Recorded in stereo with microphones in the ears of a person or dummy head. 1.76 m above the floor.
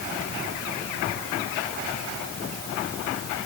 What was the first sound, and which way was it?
Only background noise.